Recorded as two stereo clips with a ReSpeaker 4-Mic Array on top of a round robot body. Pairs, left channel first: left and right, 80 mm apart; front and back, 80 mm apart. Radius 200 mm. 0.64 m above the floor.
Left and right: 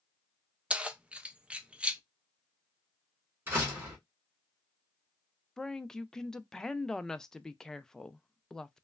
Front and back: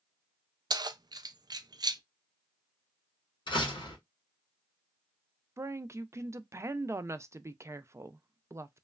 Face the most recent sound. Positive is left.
turn(degrees=170)